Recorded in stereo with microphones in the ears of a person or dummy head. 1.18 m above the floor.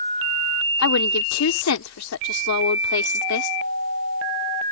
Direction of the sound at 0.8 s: 70° left (ahead or behind).